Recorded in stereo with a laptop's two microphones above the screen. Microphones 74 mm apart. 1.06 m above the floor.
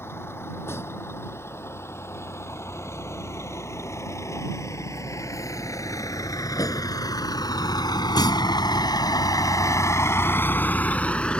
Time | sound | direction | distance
0.0 | a vehicle | 35° left (ahead or behind) | ?